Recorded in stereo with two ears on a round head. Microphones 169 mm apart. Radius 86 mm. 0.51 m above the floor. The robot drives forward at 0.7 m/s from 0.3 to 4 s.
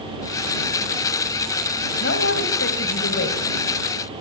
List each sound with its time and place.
2.0 s a man speaking: 60° left (ahead or behind), 3 m; by 3.4 s 70° left (ahead or behind), 3 m